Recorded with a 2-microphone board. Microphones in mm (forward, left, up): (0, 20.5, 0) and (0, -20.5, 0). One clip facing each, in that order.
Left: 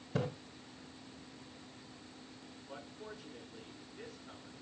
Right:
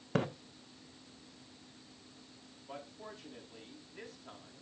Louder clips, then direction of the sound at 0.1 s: Right 3 dB; 60° right (ahead or behind).